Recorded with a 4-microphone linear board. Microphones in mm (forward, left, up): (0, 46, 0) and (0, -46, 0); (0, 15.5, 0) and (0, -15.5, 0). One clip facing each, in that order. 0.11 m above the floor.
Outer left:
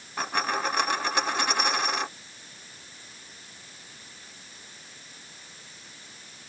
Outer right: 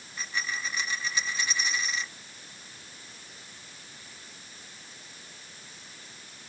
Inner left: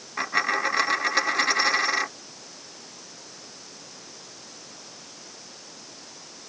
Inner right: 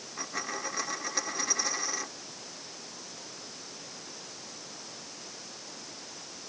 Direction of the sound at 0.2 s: 60° left (ahead or behind).